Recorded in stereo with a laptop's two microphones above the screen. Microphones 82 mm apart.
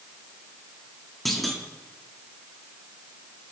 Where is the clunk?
Centre (ahead or behind), 2.5 m.